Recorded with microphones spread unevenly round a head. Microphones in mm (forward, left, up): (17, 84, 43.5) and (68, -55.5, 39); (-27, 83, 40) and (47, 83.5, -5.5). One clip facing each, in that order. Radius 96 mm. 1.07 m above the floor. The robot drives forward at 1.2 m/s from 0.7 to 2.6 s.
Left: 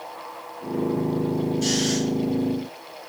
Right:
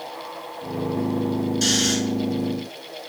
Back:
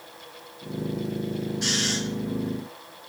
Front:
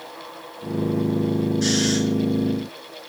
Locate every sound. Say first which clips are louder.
1.6 s snoring: even, front 8 dB; 95° right, 6 m; by 2.0 s 100° right, 6 m